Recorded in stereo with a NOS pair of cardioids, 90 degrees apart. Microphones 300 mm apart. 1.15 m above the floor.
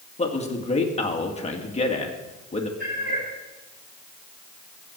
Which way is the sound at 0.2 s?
20° left.